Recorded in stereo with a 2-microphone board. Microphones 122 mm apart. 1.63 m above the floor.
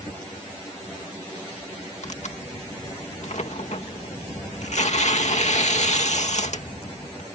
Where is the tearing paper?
65° left (ahead or behind).